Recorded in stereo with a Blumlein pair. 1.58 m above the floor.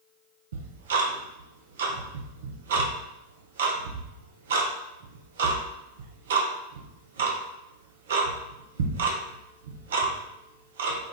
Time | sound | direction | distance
0.5 | ticking | 60° right | 0.8 m